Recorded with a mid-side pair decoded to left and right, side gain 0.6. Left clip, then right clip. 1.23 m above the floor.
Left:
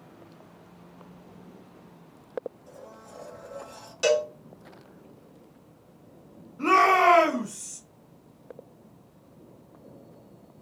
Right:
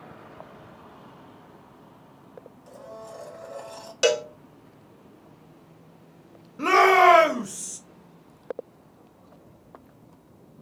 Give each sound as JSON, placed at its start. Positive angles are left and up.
{"t": 2.7, "sound": "a blender", "azimuth_deg": -65, "distance_m": 1.2}
{"t": 4.0, "sound": "a cowbell", "azimuth_deg": -40, "distance_m": 0.7}
{"t": 6.6, "sound": "a shout", "azimuth_deg": -55, "distance_m": 0.9}